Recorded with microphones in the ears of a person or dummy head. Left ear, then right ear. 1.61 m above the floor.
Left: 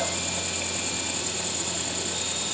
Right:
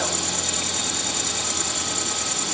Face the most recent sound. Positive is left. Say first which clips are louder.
# right 4 dB
turn(degrees=5)  # may be behind; listen again after turning